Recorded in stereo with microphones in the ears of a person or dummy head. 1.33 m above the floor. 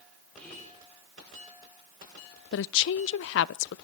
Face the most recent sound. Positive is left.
turn(degrees=70)  # may be behind; listen again after turning